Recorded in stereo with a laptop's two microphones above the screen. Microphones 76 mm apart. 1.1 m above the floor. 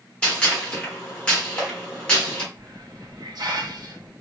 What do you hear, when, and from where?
0.2 s a gunshot: 15° left (ahead or behind), 1.2 m
2.5 s a hiss: 65° right (ahead or behind), 0.7 m